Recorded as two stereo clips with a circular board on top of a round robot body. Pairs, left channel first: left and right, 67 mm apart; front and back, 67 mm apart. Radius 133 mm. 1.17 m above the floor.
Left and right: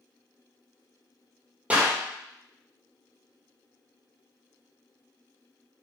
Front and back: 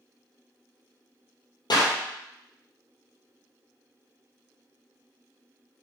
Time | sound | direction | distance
1.7 | a clap | 20° right | 3.5 m